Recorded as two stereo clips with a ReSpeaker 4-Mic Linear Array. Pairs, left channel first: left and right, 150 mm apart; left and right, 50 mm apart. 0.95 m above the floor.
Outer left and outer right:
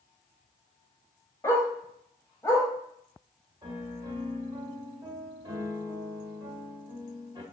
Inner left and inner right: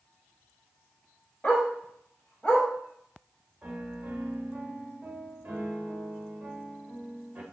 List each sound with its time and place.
1.4 s a dog barking: 20° left (ahead or behind), 1.5 m
3.6 s a piano: 30° right (ahead or behind), 1.0 m